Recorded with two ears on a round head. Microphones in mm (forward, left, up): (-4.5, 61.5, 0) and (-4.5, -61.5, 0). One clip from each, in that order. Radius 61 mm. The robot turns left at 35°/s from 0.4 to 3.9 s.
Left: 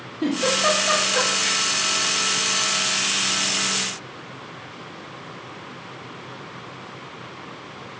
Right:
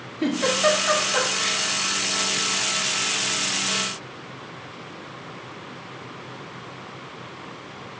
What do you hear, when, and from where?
0.2 s a giggle: 55° right (ahead or behind), 2 m; by 1.6 s 10° right (ahead or behind), 2 m